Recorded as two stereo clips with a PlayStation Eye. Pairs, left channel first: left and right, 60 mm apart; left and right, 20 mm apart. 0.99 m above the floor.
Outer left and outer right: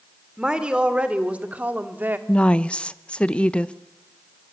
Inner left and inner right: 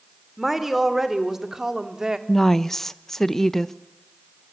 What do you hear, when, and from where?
0.4 s a woman speaking: 15° right (ahead or behind), 3 m; by 2.2 s 35° right (ahead or behind), 2 m
2.3 s a woman speaking: 20° left (ahead or behind), 0.9 m